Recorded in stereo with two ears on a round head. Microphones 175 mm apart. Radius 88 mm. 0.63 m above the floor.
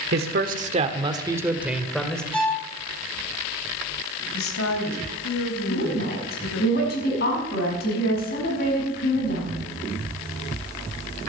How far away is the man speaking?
About 1.4 m.